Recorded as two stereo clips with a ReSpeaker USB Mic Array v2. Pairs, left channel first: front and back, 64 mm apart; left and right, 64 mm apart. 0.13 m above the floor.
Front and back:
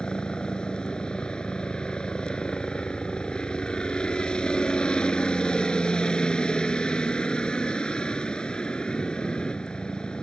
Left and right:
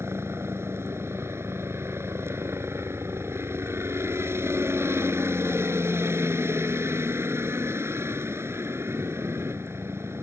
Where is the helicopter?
70° right.